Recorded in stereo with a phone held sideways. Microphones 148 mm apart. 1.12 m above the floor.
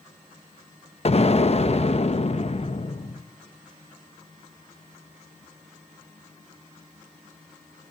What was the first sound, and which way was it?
An explosion, 45° left (ahead or behind).